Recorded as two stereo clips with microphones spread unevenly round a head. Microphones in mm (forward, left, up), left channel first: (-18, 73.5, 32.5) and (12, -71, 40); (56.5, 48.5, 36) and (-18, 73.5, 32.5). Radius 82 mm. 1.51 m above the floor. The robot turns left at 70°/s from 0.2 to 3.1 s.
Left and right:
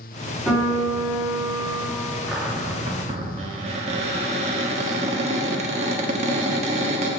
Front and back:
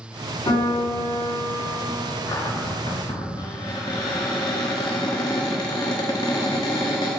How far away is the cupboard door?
About 1.2 m.